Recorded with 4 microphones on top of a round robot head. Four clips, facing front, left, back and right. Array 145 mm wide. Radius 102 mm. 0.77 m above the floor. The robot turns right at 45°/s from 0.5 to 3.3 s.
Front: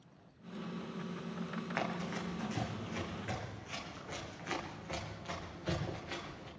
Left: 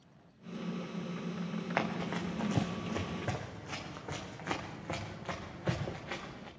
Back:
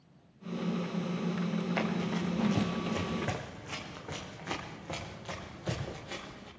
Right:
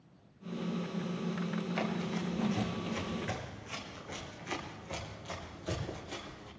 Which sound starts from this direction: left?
Running footsteps, at 1.8 s.